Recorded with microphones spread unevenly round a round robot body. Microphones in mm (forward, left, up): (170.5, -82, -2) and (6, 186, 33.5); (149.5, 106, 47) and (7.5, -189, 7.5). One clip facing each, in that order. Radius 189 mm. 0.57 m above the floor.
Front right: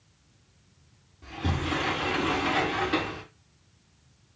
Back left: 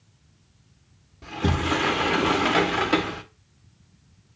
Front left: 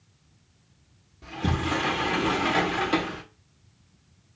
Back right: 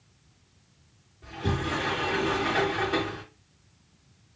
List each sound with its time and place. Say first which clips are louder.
1.2 s a sliding door: back left 6 dB, front left 2 dB; 105° left, 0.7 m